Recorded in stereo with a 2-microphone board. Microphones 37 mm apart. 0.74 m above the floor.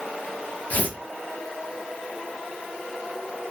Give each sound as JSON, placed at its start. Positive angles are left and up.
{"t": 0.7, "sound": "tearing paper", "side_deg": 45, "distance_m": 1.3}